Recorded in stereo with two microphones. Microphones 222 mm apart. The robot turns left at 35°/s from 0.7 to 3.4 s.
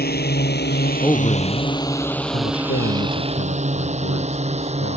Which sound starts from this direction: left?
A drone, at 0.0 s.